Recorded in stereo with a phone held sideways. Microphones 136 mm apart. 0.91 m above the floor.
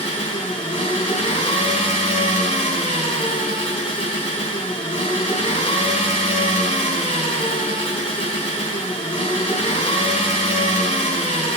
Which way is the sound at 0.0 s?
45° left (ahead or behind).